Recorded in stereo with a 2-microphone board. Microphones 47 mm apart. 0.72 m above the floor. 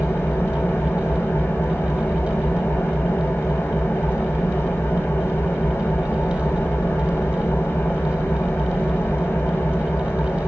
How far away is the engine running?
About 4.5 m.